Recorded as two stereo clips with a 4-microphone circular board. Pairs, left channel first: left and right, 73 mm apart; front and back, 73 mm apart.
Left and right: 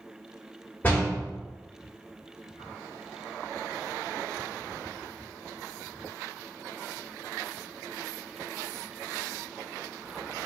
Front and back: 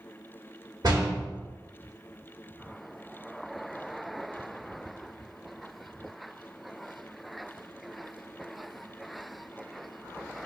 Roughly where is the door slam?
Behind left.